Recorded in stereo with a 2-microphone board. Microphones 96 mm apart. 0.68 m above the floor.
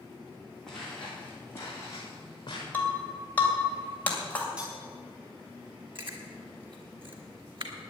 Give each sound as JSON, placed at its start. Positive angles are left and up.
{"t": 0.7, "sound": "footsteps", "side_deg": 5, "distance_m": 4.0}
{"t": 2.7, "sound": "breaking glass", "side_deg": 15, "distance_m": 2.5}
{"t": 4.6, "sound": "cutlery clinking", "side_deg": -10, "distance_m": 4.0}
{"t": 6.0, "sound": "chewing", "side_deg": -60, "distance_m": 2.5}